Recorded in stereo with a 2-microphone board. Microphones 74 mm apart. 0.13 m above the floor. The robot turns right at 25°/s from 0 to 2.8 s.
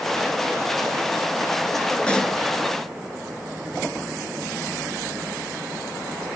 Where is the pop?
15° left (ahead or behind), 1.3 m; by 2.4 s 10° left (ahead or behind), 1.3 m.